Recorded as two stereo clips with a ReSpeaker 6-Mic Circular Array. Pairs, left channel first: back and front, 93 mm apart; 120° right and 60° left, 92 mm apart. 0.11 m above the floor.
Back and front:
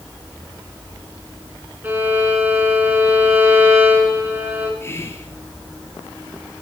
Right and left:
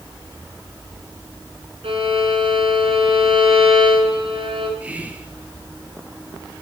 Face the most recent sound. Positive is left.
turn(degrees=130)